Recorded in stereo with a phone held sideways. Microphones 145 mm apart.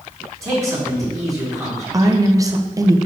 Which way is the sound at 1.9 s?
25° right (ahead or behind).